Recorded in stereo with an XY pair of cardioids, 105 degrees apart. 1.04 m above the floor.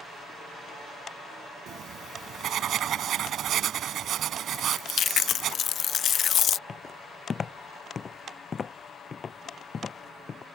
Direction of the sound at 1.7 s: 65° right.